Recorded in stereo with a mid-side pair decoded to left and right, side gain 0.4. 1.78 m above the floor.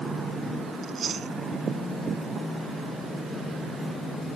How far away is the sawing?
I don't hear sawing.